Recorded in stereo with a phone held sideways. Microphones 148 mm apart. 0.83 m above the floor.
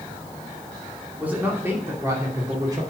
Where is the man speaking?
10° right (ahead or behind), 2.5 m; by 2.8 s 30° right (ahead or behind), 2.5 m.